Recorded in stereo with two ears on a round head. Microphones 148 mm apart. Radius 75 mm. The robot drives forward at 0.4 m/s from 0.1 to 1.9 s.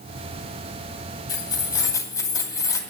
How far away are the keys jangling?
About 2 m.